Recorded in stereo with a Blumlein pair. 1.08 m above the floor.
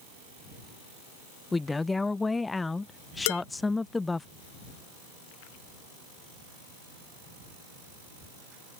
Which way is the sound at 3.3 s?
50° left.